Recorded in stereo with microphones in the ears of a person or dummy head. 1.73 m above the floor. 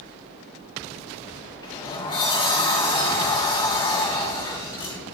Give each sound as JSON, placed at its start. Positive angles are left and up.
{"t": 1.6, "sound": "a sliding door", "side_deg": 20, "distance_m": 2.5}